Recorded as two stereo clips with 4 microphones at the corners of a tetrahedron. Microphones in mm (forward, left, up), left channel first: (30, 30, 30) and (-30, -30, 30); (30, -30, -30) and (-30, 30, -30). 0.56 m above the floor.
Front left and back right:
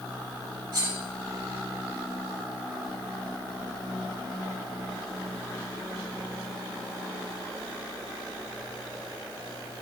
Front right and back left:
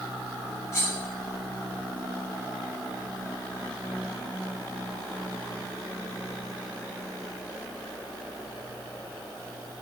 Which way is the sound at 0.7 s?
100° right.